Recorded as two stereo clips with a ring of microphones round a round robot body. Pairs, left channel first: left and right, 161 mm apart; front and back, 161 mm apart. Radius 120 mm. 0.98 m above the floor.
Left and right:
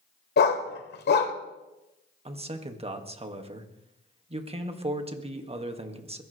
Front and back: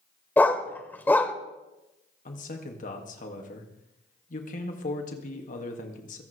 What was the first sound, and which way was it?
A dog barking, 80° left.